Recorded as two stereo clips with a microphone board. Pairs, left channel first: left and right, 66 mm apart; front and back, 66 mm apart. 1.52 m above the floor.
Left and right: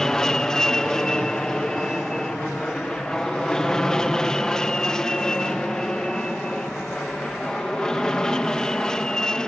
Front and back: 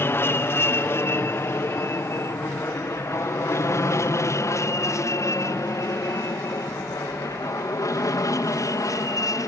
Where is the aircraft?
15° left; by 9.5 s 10° left.